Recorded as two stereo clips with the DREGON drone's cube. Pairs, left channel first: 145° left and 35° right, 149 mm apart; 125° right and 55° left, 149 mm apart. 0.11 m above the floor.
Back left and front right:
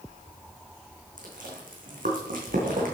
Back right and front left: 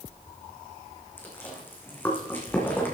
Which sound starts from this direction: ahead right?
Chewing, at 1.2 s.